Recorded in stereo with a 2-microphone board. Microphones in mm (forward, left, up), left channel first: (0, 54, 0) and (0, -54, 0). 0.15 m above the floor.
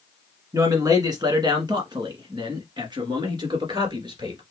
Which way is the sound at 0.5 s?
30° right (ahead or behind).